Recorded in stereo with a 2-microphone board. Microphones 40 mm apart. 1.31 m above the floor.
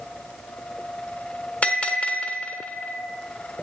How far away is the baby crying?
No baby crying in this recording.